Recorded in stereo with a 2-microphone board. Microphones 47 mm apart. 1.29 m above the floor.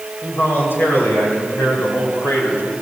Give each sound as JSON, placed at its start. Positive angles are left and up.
{"t": 0.2, "sound": "a man speaking", "side_deg": 60, "distance_m": 5.0}